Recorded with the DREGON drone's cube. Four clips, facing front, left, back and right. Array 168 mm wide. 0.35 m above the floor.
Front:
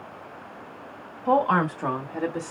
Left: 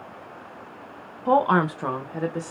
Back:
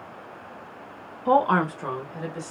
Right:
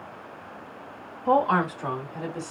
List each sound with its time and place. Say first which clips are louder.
1.2 s a woman speaking: left 2 dB, back 1 dB; 150° left, 0.9 m; by 2.5 s 35° left, 1.4 m